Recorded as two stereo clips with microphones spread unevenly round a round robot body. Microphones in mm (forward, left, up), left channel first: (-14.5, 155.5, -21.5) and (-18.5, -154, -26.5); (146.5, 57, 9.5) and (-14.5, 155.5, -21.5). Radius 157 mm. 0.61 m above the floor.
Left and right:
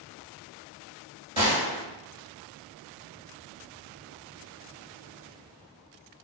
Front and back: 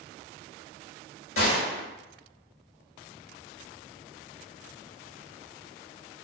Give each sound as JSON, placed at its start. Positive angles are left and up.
{"t": 1.4, "sound": "a gunshot", "azimuth_deg": -15, "distance_m": 1.1}